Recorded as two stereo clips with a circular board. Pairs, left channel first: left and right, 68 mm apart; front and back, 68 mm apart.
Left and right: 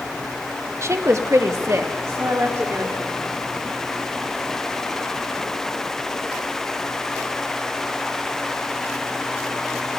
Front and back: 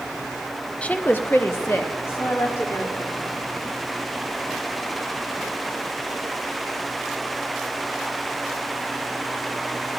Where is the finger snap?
I don't hear a finger snap.